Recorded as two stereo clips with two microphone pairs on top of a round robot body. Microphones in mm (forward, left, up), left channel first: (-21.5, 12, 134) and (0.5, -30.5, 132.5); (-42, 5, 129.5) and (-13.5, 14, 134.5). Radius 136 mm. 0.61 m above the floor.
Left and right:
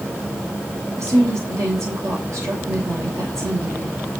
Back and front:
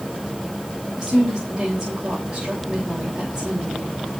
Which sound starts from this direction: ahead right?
A woman speaking, at 1.0 s.